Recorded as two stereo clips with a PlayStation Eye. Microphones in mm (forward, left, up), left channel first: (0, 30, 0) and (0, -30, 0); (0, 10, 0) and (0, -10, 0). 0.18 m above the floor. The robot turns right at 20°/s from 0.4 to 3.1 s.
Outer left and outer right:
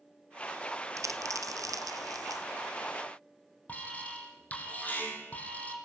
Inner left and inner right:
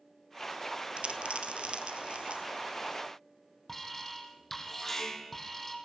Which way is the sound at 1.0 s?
60° right (ahead or behind).